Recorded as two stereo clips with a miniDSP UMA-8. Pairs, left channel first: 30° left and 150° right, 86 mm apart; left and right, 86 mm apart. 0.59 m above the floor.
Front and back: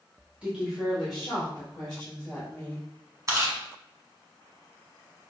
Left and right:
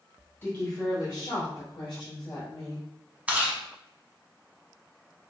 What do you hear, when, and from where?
0.4 s a woman speaking: 140° left, 1.2 m; by 2.9 s 105° left, 3.5 m
3.3 s chewing: 155° right, 0.9 m